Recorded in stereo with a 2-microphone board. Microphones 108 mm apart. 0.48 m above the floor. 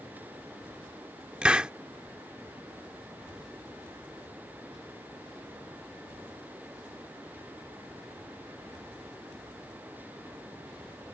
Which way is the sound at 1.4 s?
10° right (ahead or behind).